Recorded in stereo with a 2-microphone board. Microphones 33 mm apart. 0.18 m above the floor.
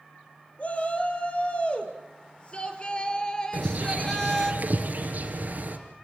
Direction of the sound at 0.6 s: 45° left (ahead or behind).